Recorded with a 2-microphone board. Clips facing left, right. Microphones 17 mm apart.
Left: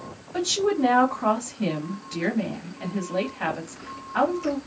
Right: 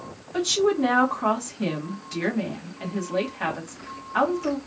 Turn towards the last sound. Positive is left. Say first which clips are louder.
# right 2 dB
turn(degrees=-5)  # may be behind; listen again after turning